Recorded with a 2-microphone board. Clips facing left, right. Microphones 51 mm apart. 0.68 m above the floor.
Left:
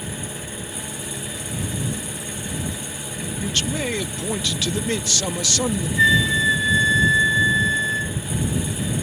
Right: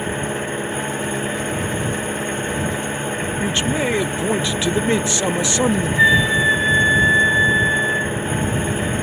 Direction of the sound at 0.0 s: 40° right (ahead or behind).